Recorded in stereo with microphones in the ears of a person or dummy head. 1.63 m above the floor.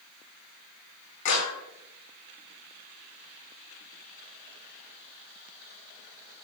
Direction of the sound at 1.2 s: 60° left (ahead or behind).